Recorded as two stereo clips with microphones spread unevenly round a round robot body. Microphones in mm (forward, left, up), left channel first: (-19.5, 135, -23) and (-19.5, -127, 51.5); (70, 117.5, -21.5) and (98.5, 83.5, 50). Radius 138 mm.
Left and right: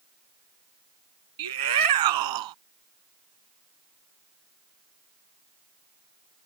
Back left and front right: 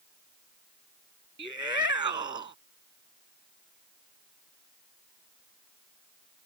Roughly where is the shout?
Right.